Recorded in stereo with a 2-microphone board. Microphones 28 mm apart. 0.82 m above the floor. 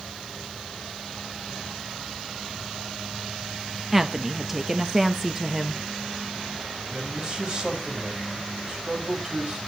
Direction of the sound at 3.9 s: 10° right (ahead or behind).